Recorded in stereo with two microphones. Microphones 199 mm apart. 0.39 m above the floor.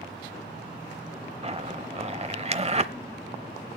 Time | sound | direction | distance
1.4 | a zipper | 30° right (ahead or behind) | 0.8 m